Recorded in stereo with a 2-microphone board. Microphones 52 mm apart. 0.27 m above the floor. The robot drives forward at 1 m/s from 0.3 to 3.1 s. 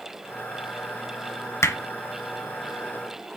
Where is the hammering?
60° left (ahead or behind), 1.2 m.